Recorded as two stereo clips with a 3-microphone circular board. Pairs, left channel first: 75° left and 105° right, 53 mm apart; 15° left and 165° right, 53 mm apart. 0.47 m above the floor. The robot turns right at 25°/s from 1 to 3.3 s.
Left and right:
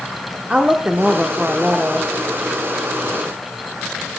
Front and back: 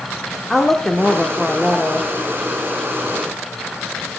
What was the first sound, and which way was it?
A woman speaking, 65° right.